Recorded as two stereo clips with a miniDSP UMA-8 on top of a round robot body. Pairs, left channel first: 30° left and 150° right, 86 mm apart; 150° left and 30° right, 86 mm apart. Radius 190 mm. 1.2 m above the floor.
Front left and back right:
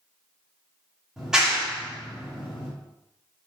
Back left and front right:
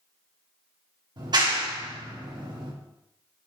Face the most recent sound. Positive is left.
turn(degrees=-65)